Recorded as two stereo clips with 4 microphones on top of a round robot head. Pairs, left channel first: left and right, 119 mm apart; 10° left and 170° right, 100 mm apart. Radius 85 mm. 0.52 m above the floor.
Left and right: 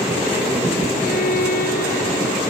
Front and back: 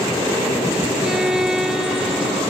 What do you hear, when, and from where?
1.0 s a violin: 105° left